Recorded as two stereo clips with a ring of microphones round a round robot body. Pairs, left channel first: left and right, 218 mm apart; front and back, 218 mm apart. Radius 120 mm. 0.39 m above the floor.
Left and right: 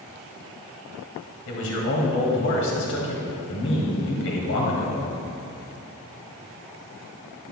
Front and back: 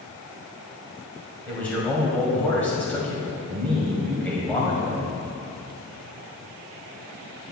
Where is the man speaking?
85° left, 2 m.